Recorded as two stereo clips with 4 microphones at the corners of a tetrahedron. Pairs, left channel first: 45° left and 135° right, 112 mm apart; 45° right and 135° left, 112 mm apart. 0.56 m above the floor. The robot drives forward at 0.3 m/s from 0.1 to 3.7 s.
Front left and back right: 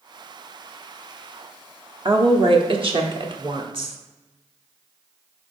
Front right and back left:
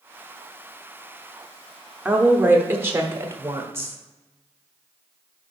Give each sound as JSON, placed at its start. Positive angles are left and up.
{"t": 2.0, "sound": "a woman speaking", "azimuth_deg": -155, "distance_m": 0.9}